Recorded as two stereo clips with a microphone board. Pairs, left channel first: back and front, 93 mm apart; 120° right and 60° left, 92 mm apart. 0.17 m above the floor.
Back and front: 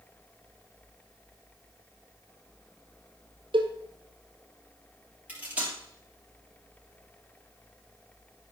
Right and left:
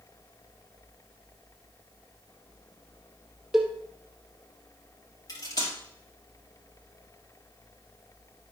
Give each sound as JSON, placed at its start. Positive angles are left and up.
{"t": 3.5, "sound": "a cowbell", "azimuth_deg": -25, "distance_m": 1.5}
{"t": 5.3, "sound": "cutlery clinking", "azimuth_deg": -75, "distance_m": 2.0}